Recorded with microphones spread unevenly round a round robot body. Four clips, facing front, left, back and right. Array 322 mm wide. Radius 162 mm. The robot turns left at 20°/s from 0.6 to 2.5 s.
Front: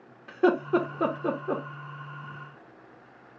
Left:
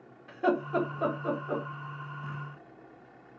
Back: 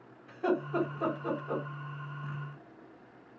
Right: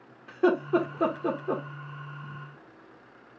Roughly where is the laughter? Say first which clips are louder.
Right 4 dB, front 8 dB; ahead right.